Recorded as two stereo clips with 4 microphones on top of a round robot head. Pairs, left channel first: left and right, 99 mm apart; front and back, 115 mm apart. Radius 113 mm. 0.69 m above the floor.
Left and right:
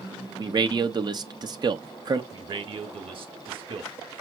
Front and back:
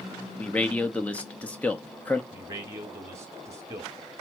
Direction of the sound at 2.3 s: 115° right.